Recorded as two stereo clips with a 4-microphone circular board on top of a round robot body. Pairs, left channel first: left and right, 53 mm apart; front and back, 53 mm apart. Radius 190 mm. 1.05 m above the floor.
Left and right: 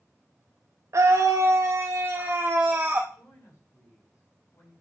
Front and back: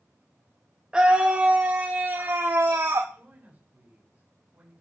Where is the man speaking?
115° left, 8.5 m.